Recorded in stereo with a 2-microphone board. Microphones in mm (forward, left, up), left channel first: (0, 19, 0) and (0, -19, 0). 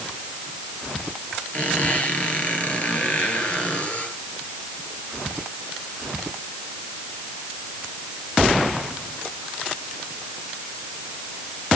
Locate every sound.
1.5 s a squeak: 35° left (ahead or behind), 3.5 m